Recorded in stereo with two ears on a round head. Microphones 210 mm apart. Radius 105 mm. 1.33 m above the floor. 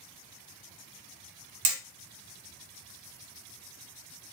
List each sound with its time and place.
1.6 s hammering: 85° right, 1.0 m